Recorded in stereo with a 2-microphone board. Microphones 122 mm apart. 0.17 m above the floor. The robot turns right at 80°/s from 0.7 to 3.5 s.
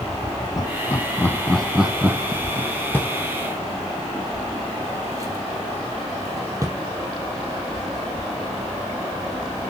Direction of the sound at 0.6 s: 30° left (ahead or behind).